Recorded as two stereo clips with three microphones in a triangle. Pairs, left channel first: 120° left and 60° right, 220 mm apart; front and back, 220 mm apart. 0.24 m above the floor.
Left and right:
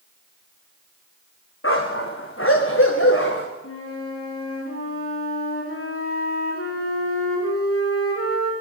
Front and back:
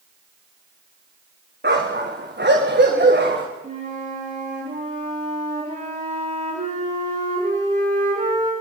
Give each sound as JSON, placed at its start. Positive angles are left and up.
{"t": 1.6, "sound": "a dog barking", "azimuth_deg": 140, "distance_m": 5.0}
{"t": 3.6, "sound": "a flute", "azimuth_deg": 120, "distance_m": 10.0}